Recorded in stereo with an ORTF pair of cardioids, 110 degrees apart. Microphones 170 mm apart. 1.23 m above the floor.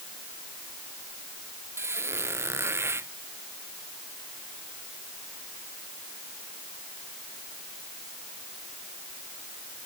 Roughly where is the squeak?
Ahead.